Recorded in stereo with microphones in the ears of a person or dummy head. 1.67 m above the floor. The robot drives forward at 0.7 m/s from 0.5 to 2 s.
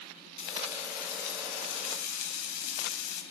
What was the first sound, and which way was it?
Frying, 35° left (ahead or behind).